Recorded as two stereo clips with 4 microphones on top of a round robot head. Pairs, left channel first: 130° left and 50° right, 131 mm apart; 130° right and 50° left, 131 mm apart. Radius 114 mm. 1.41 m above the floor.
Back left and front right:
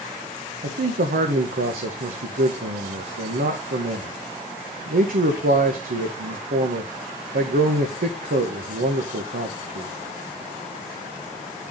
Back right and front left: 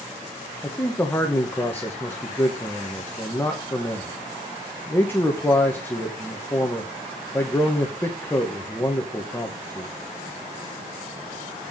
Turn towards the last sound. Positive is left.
turn(degrees=-55)